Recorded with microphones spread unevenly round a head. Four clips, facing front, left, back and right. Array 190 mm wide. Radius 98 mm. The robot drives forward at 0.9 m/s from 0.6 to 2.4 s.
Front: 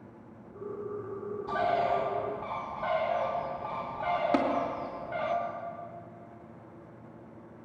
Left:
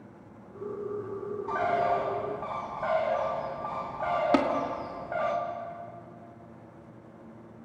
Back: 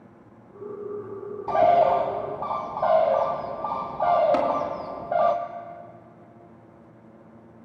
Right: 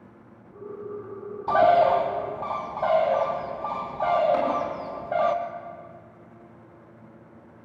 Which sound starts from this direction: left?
Tapping, at 4.3 s.